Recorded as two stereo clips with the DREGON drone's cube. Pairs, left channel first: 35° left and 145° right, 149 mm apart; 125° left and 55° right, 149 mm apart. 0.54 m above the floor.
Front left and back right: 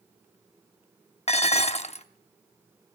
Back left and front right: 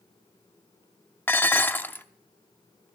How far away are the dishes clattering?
About 0.6 m.